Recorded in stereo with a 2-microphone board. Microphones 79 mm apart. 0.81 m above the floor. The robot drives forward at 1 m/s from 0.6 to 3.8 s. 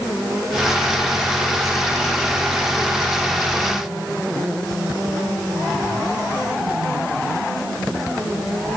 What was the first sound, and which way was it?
Only background noise.